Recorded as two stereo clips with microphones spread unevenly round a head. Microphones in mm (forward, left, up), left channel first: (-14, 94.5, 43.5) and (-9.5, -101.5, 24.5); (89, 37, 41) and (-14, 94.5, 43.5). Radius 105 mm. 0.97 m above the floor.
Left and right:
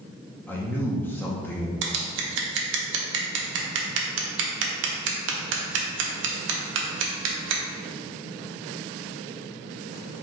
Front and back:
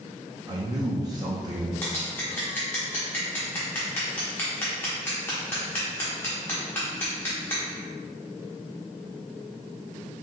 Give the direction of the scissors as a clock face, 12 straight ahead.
4 o'clock.